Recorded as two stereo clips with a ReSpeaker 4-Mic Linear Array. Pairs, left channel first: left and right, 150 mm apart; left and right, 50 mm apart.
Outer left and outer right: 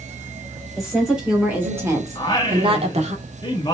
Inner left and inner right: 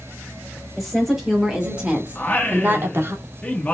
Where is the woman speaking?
Centre (ahead or behind), 2.5 m; by 3.1 s 50° right (ahead or behind), 1.4 m.